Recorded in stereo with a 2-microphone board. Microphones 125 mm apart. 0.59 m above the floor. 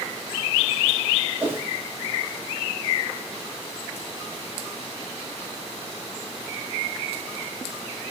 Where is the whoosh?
20° right (ahead or behind), 0.5 m.